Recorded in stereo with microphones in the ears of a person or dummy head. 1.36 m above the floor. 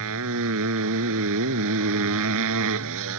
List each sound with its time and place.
0.0 s a motorcycle: 70° right (ahead or behind)